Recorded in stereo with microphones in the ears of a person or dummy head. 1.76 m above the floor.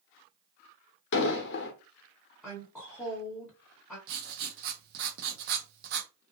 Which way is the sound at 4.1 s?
50° right (ahead or behind).